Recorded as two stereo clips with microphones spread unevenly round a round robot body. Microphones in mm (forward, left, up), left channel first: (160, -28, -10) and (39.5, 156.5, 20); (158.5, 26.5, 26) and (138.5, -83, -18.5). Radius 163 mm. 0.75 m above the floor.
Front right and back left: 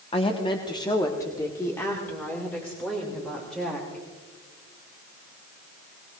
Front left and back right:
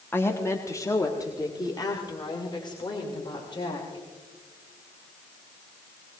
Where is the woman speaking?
5° right, 1.3 m; by 4.0 s 30° left, 3.5 m.